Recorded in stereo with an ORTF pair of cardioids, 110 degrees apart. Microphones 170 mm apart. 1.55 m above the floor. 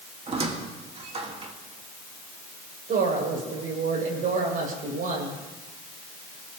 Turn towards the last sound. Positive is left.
turn(degrees=-55)